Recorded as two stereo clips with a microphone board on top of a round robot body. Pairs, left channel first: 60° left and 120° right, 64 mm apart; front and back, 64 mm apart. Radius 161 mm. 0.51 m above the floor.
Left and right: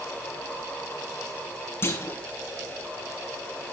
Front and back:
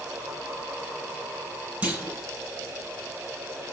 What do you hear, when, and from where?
1.8 s a clunk: 110° left, 5.5 m